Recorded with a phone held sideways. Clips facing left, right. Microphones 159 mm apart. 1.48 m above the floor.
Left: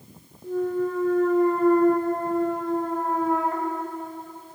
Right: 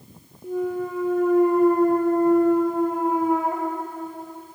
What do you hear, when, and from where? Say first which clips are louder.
0.4 s a clunk: left 1 dB; 15° right (ahead or behind), 0.9 m